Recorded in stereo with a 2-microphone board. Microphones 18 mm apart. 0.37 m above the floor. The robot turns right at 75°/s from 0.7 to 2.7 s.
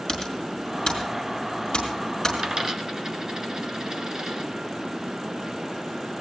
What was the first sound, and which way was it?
Typing on a keyboard, 40° left (ahead or behind).